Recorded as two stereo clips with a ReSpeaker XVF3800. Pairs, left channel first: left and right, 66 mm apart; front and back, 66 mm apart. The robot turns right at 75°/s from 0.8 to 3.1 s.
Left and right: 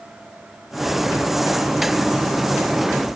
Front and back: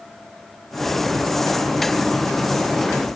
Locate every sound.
Only background noise.